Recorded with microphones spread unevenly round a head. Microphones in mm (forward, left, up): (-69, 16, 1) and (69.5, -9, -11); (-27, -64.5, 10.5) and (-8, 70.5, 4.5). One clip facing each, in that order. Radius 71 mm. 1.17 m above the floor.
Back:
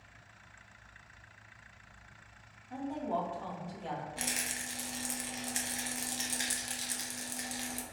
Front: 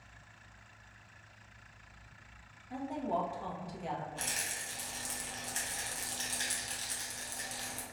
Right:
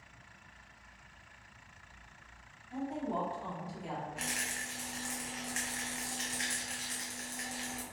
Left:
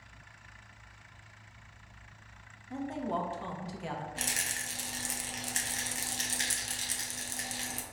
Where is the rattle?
110° left, 0.5 m.